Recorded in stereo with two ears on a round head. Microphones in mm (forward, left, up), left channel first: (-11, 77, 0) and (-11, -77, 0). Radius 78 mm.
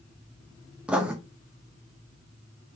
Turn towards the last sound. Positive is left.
turn(degrees=-5)  # may be behind; listen again after turning